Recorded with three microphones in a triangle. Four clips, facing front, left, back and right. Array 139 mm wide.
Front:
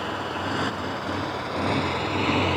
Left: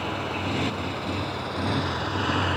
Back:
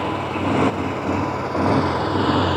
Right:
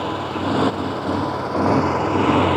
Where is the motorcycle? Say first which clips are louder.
Right 6 dB, back 6 dB; 135° right; by 2.6 s 105° right.